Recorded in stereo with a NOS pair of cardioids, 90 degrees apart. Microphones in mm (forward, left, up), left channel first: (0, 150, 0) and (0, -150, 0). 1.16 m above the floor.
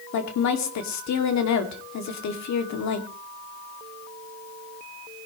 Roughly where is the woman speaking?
Ahead left.